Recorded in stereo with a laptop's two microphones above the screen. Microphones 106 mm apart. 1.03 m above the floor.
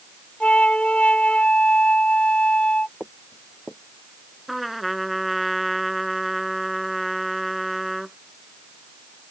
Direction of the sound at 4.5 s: Centre (ahead or behind).